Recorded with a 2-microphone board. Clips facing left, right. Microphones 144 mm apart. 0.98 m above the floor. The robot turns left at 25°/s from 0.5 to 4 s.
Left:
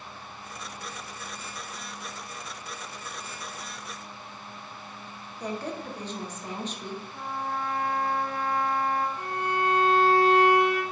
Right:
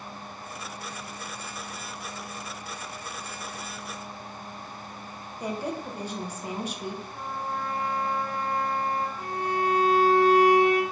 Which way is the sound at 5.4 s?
10° right (ahead or behind).